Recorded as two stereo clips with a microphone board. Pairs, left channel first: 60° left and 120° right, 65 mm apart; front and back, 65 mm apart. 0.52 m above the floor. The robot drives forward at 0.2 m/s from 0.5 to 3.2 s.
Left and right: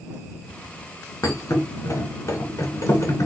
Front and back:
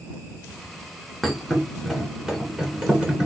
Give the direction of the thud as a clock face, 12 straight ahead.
9 o'clock.